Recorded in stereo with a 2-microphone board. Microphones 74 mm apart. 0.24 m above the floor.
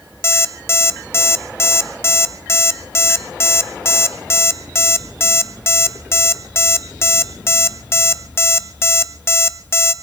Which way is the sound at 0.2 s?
35° left (ahead or behind).